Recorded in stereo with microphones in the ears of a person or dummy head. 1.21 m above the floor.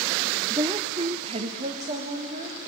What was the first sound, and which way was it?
A woman speaking, 15° right (ahead or behind).